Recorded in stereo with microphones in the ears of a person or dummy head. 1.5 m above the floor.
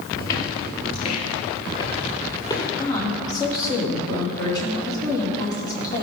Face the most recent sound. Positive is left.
turn(degrees=25)  # may be behind; listen again after turning